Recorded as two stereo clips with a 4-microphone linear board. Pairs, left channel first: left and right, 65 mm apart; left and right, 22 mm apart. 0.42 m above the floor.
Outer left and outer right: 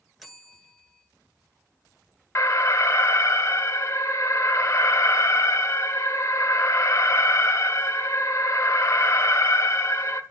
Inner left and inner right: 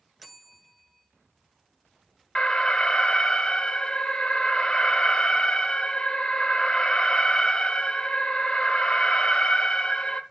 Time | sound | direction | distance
0.2 | a bell | centre (ahead or behind) | 1.6 m
2.4 | an alarm | 45° left (ahead or behind) | 1.2 m